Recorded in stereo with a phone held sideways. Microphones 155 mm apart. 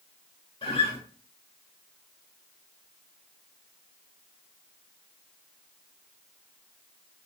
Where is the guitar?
35° left (ahead or behind), 1.7 m.